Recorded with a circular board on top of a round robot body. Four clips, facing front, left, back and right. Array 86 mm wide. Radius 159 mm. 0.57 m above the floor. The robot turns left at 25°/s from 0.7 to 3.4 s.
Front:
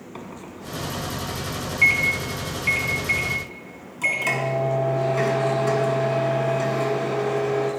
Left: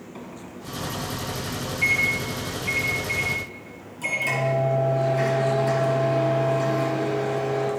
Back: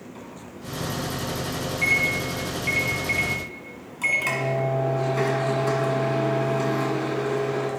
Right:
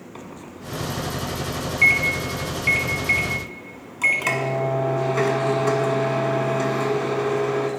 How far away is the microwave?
About 1.4 m.